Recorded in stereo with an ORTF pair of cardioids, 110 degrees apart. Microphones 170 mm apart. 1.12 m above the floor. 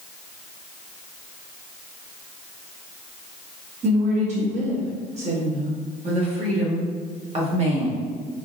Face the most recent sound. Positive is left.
turn(degrees=-40)